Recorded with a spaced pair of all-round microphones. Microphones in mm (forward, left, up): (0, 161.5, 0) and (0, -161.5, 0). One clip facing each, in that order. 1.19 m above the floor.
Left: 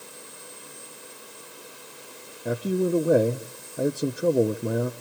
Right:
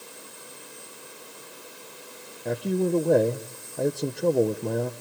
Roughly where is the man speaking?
Centre.